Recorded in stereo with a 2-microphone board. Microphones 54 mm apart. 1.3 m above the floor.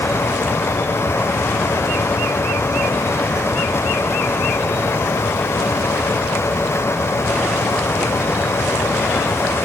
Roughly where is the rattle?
No rattle in this recording.